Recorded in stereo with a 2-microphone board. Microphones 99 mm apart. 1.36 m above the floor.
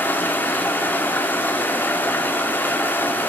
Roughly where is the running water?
Centre.